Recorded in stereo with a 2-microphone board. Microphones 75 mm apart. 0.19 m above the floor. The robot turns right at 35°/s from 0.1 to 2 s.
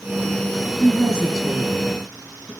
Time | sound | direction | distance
0.8 | a woman speaking | 30° right | 2.0 m